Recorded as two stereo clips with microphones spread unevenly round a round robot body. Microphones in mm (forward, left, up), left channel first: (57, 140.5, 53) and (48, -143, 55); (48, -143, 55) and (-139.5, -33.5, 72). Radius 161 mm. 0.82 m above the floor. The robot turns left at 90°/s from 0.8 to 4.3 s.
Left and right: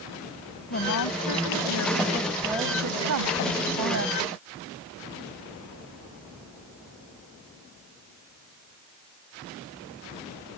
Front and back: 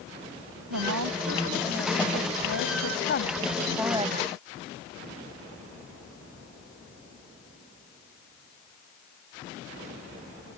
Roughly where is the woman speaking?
Behind left.